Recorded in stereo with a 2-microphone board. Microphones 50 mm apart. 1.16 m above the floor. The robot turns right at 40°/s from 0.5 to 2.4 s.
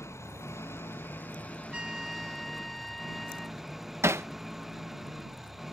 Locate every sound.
0.0 s an engine running: 110° left; by 5.7 s 175° right
1.7 s a trumpet: 20° right (ahead or behind); by 3.6 s 5° left (ahead or behind)
4.0 s hammering: 70° right (ahead or behind)